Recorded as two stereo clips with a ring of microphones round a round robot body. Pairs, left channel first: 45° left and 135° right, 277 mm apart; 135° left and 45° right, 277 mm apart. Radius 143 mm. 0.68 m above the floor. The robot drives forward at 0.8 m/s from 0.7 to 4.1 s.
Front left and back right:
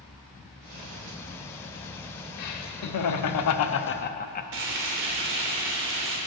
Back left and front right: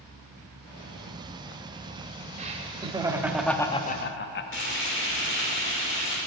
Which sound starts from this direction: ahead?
Laughter, at 2.4 s.